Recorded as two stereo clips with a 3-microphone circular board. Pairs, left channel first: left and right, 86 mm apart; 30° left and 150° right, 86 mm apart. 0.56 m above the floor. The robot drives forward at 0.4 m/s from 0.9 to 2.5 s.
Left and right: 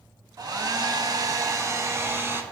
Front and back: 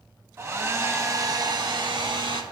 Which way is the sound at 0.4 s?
100° right.